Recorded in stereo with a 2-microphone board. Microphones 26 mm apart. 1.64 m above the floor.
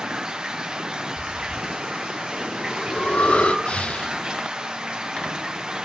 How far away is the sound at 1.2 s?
About 1.8 m.